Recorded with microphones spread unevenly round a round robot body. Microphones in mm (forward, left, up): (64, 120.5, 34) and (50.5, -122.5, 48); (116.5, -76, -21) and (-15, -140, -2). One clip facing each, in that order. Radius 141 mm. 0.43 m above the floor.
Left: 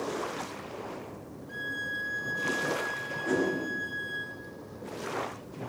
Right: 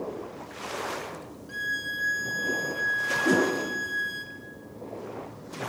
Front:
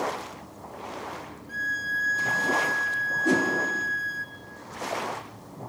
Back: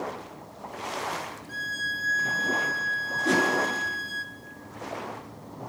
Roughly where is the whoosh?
Ahead right.